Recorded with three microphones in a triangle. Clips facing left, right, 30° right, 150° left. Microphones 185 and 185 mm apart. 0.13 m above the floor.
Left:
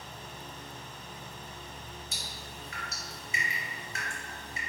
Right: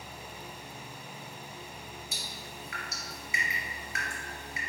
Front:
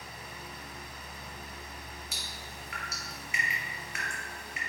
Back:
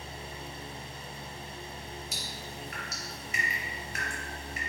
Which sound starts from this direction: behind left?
Dripping, at 2.1 s.